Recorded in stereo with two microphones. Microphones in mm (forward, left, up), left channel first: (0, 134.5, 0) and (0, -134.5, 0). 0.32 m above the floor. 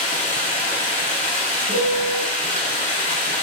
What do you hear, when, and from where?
0.0 s running water: 30° left (ahead or behind), 0.9 m
1.7 s a piano: 65° right (ahead or behind), 0.8 m